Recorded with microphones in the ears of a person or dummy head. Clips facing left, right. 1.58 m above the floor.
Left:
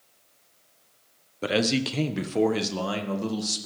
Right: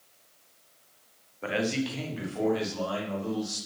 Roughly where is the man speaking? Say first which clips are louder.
Left 4 dB; left.